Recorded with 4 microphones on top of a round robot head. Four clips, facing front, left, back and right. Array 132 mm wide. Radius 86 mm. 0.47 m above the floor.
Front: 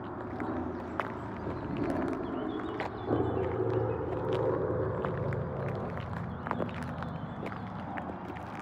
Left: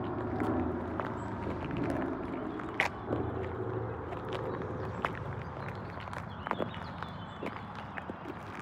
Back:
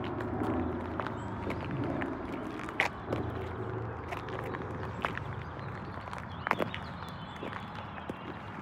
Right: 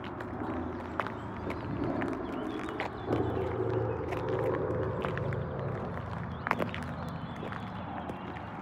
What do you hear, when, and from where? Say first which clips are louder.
0.0 s an aircraft: left 4 dB, back 3 dB; 120° left; by 8.6 s 35° right